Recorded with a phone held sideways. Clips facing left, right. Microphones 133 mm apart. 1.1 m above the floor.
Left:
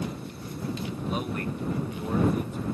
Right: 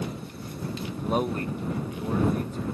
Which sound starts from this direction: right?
A man speaking, at 1.1 s.